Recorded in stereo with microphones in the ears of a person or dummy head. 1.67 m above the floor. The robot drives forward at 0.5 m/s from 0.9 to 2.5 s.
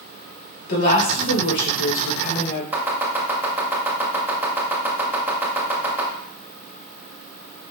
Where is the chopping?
10° right (ahead or behind), 1.7 m.